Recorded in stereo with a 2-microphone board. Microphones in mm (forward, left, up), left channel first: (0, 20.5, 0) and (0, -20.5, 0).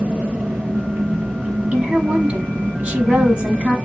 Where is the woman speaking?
35° right (ahead or behind), 1.3 m.